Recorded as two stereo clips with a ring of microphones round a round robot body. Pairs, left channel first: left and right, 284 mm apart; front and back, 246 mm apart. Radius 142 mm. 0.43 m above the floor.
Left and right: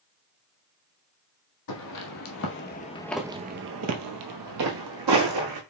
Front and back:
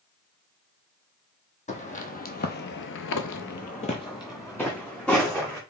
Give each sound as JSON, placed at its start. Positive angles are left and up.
{"t": 1.7, "sound": "footsteps", "azimuth_deg": 60, "distance_m": 1.3}